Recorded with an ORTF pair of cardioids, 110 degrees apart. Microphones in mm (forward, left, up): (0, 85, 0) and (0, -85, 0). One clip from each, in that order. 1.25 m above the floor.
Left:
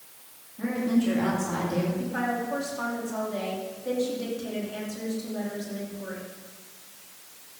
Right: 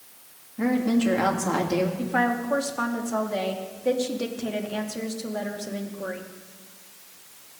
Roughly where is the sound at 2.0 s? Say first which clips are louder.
Right 5 dB; ahead right.